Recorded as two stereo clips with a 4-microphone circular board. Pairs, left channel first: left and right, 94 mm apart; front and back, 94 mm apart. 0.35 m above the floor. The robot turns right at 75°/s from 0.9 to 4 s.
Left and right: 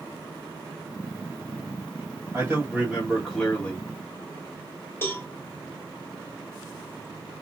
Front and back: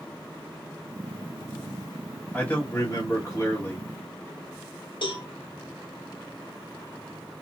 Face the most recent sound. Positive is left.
turn(degrees=25)